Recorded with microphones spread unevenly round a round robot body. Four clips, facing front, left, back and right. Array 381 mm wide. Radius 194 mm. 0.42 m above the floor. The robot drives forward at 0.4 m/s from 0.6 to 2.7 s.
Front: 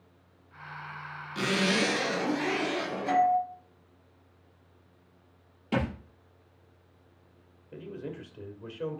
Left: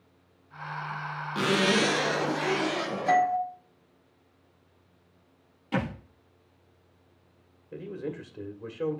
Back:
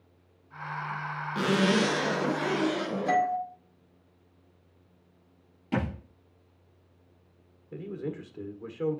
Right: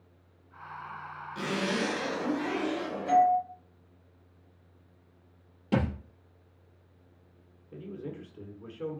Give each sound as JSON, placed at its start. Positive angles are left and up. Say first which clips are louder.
{"t": 1.4, "sound": "a zipper", "louder": "left 6 dB, back 3 dB", "azimuth_deg": 105, "distance_m": 1.9}
{"t": 3.1, "sound": "a doorbell", "louder": "right 1 dB, front 3 dB", "azimuth_deg": 125, "distance_m": 1.9}
{"t": 5.7, "sound": "a thud", "louder": "right 1 dB, front 1 dB", "azimuth_deg": -100, "distance_m": 3.0}
{"t": 7.7, "sound": "a man speaking", "louder": "left 5 dB, back 4 dB", "azimuth_deg": 135, "distance_m": 1.6}